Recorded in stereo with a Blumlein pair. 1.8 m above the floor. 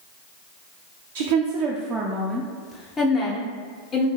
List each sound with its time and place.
1.1 s a woman speaking: 55° right, 0.6 m; by 4.1 s 30° left, 1.4 m